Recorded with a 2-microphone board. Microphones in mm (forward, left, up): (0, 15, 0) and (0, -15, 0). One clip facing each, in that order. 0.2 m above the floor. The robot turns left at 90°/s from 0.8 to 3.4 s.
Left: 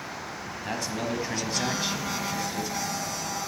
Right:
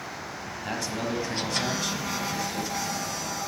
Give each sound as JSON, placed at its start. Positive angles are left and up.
{"t": 0.5, "sound": "a man speaking", "side_deg": 5, "distance_m": 1.1}